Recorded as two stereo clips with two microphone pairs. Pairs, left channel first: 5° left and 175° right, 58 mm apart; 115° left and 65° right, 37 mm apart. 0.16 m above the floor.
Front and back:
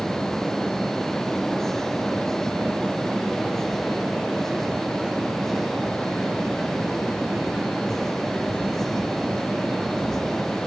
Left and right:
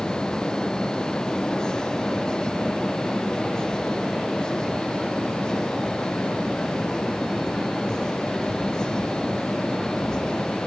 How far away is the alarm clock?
I don't hear an alarm clock.